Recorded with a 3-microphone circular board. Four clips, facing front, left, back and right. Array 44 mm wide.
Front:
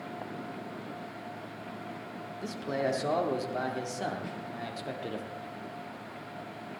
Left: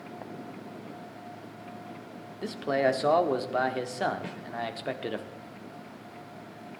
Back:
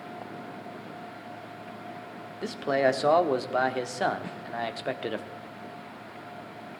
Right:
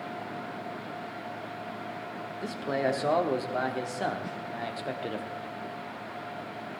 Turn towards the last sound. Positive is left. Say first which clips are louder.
# right 2 dB, back 1 dB
turn(degrees=100)